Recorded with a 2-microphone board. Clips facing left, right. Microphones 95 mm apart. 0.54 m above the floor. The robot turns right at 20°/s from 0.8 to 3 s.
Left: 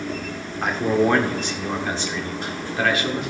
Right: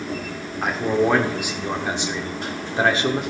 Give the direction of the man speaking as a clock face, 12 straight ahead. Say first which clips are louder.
Left 1 dB; 6 o'clock.